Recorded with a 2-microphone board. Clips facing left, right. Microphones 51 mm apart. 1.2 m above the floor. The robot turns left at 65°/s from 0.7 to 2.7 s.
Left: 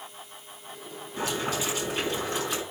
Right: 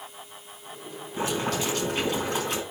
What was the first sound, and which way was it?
Boiling, 25° right.